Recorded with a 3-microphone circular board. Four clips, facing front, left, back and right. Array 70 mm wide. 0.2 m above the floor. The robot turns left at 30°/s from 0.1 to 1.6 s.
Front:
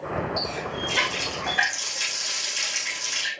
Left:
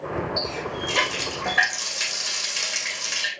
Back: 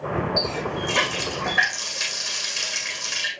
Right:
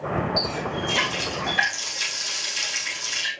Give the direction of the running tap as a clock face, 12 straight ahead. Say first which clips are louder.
Right 2 dB, back 3 dB; 7 o'clock.